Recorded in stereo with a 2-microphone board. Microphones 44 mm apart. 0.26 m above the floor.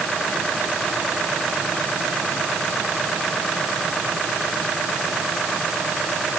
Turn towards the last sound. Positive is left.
No sound to turn to.